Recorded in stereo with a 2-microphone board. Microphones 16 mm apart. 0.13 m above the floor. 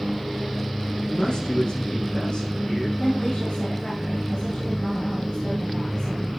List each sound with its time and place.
1.0 s a man speaking: 60° left (ahead or behind), 8.5 m
3.0 s a woman speaking: 65° left (ahead or behind), 6.5 m